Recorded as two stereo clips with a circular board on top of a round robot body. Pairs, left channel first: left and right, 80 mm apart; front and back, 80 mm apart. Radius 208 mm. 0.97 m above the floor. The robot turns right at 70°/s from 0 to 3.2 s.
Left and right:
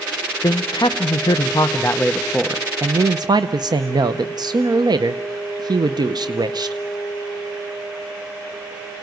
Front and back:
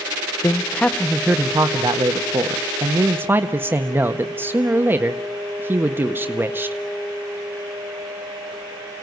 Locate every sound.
0.4 s a man speaking: 50° left, 0.9 m; by 6.8 s 115° right, 0.9 m